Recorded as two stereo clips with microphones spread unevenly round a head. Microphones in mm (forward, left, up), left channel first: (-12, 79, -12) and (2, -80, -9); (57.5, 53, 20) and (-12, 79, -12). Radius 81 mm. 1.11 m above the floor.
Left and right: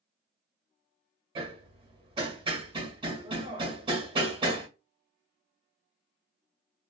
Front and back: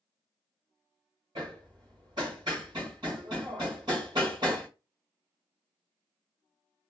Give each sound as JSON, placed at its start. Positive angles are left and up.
{"t": 1.4, "sound": "hammering", "azimuth_deg": -135, "distance_m": 1.3}